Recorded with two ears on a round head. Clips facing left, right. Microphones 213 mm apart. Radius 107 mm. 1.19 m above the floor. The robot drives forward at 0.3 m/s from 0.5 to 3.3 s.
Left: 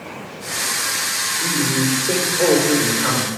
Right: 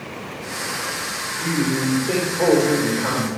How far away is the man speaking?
About 5 m.